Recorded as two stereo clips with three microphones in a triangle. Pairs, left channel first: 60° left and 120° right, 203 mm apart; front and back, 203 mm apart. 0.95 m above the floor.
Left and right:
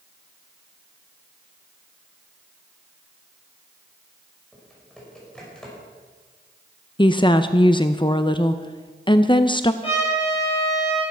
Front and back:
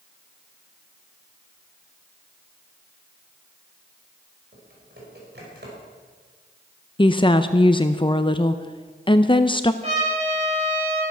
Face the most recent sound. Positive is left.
turn(degrees=120)